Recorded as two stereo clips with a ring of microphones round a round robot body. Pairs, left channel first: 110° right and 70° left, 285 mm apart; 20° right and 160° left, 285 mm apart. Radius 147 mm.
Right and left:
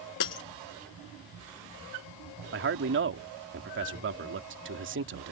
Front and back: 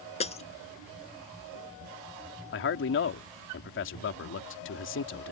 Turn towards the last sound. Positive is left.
turn(degrees=20)